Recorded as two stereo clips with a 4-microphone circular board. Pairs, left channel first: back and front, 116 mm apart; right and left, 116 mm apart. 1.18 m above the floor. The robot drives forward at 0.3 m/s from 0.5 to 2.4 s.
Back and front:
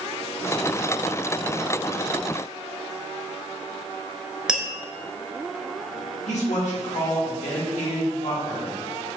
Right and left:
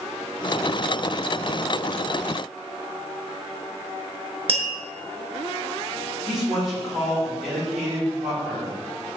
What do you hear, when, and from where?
4.5 s tapping: 85° left, 0.6 m
6.3 s a man speaking: 175° left, 1.7 m